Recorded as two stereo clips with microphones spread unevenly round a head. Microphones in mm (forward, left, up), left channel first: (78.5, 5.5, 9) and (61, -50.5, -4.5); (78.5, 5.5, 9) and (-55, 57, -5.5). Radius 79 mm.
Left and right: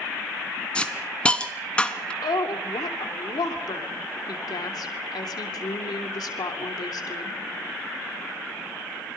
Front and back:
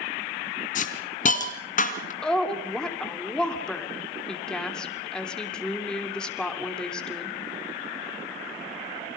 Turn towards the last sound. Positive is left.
turn(degrees=65)